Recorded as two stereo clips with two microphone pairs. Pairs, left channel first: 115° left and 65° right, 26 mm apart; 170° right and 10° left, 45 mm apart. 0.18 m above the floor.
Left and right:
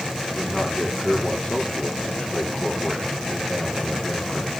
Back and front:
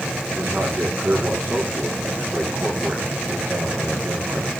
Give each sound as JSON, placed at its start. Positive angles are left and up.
{"t": 0.3, "sound": "a man speaking", "azimuth_deg": 65, "distance_m": 10.0}